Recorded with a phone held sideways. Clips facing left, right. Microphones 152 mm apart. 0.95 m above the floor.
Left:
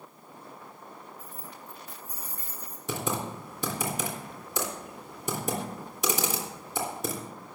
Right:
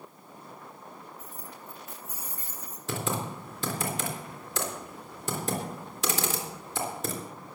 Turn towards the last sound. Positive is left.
turn(degrees=15)  # may be behind; listen again after turning